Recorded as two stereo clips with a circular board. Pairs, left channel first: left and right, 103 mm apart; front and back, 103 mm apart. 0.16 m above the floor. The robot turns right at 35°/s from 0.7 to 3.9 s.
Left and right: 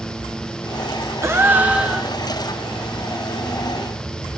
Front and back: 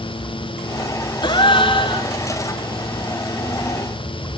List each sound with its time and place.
1.2 s a gasp: 30° right, 2.5 m; by 2.1 s straight ahead, 2.5 m